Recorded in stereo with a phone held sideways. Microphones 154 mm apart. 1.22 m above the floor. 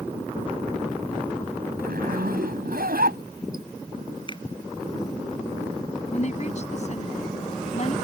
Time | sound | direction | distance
1.8 | a zipper | 80° right | ?
4.3 | a finger snap | 30° left (ahead or behind) | ?
6.1 | a woman speaking | 50° left (ahead or behind) | ?